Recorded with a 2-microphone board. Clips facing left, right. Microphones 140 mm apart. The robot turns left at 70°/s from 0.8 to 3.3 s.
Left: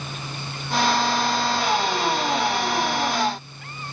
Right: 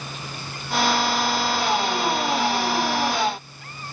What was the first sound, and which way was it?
Only background noise.